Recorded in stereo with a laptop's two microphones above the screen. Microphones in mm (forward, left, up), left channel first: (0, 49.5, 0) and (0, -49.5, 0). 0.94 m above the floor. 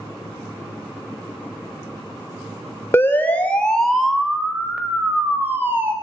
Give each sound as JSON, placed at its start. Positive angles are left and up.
{"t": 2.9, "sound": "a siren", "side_deg": 25, "distance_m": 3.0}